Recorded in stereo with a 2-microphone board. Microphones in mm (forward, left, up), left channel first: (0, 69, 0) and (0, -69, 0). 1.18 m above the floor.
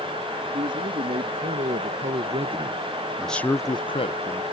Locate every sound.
0.5 s a man speaking: 75° right (ahead or behind); by 4.4 s 50° left (ahead or behind)